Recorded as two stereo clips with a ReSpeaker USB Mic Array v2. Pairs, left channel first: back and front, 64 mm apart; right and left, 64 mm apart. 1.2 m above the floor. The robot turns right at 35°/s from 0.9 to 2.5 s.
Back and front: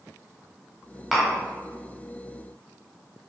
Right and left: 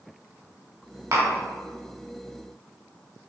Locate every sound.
1.1 s tapping: 90° left, 1.3 m; by 1.3 s 100° left, 1.3 m